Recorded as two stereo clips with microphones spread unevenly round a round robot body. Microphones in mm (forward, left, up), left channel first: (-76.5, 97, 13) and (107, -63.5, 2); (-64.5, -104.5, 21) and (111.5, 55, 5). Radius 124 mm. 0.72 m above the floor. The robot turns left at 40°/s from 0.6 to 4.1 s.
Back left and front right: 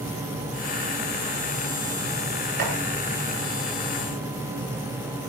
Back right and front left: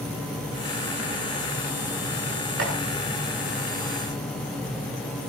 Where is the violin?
No violin in this recording.